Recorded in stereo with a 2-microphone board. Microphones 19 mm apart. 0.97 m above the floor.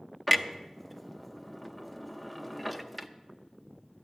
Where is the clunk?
5° left (ahead or behind), 0.6 m.